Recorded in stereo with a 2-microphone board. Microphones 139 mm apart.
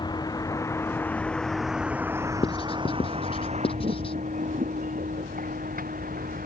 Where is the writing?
40° left (ahead or behind).